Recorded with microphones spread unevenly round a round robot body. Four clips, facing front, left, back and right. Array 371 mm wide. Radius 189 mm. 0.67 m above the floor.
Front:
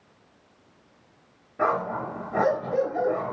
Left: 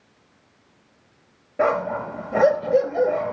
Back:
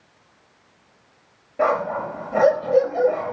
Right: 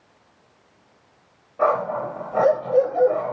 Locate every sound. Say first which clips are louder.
1.6 s a dog barking: right 1 dB, back 4 dB; 80° left, 5 m